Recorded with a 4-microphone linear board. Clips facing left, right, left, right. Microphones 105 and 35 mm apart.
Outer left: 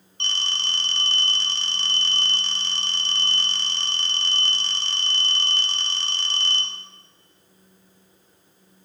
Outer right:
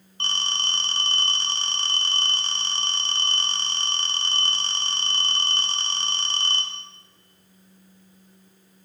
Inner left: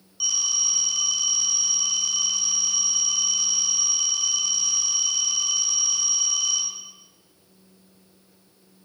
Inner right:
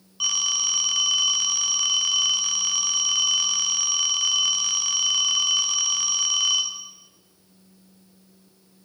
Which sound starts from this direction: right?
A phone ringing, at 0.2 s.